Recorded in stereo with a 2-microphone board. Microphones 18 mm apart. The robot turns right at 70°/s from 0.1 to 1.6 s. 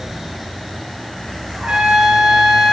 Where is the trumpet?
55° right (ahead or behind), 0.5 m.